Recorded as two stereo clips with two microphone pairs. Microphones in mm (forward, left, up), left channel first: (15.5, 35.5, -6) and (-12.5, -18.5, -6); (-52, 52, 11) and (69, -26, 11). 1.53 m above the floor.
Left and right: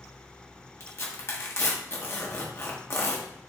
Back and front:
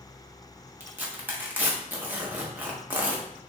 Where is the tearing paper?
40° left, 1.1 m.